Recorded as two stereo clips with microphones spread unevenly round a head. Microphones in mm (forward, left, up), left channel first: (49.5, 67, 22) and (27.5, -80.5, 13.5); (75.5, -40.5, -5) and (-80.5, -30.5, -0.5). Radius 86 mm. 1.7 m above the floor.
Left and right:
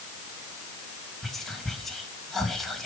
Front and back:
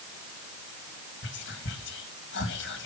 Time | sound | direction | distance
1.2 | whispering | 5° right | 2 m